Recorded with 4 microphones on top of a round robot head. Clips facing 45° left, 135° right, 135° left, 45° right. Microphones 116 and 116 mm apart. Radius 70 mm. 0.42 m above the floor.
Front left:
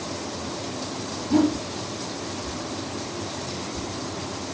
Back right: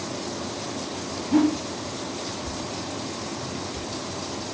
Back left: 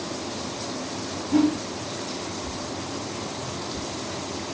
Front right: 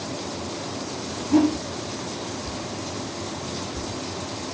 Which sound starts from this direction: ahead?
A whoosh, at 1.3 s.